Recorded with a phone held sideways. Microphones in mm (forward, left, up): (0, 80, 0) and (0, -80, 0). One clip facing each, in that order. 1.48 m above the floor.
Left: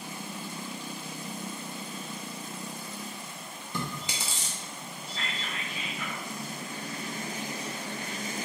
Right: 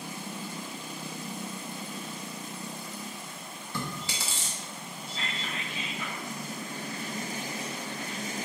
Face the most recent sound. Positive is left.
turn(degrees=-25)  # may be behind; listen again after turning